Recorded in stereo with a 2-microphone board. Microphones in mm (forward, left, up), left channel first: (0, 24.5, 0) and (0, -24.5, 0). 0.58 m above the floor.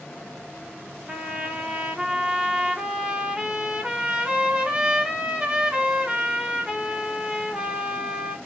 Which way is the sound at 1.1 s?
20° right (ahead or behind).